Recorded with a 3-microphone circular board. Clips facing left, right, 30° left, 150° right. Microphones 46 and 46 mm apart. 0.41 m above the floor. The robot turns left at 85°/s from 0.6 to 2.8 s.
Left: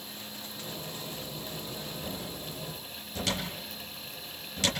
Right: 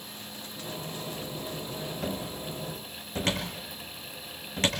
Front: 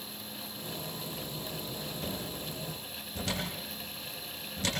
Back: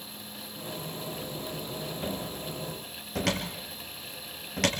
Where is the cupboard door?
80° right, 4.5 m; by 4.7 s 145° right, 4.5 m.